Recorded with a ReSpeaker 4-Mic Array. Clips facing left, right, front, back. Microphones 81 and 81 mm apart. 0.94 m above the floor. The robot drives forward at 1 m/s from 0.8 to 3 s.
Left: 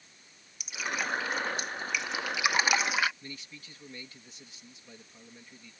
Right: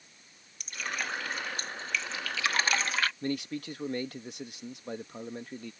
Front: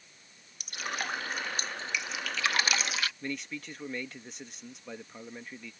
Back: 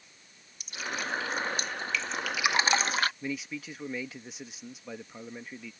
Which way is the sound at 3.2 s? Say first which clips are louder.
Right 14 dB, back 2 dB; 95° right.